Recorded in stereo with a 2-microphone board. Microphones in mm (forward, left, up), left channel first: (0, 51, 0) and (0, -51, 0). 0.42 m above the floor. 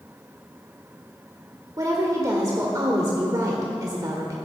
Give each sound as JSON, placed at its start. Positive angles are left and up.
{"t": 1.8, "sound": "a woman speaking", "side_deg": -35, "distance_m": 1.4}